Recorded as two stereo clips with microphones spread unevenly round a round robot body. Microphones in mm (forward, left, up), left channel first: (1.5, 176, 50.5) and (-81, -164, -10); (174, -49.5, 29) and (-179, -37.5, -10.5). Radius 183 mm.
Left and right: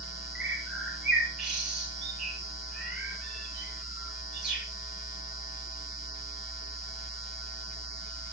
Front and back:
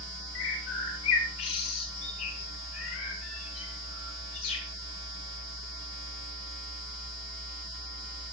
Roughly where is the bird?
Ahead.